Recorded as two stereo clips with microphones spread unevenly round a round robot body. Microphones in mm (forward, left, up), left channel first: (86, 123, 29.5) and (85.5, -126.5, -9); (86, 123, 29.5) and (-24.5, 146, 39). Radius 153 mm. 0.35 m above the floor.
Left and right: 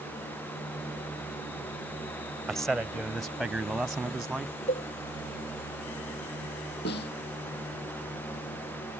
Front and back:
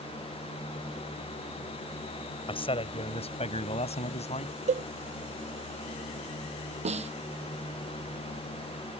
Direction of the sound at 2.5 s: 5° right.